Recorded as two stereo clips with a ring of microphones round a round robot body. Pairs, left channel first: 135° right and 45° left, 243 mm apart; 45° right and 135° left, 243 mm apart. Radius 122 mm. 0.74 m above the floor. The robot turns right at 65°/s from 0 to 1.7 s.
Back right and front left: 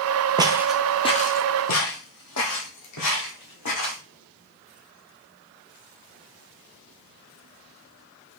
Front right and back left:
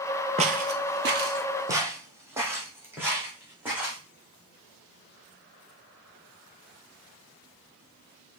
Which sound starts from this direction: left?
Footsteps, at 0.4 s.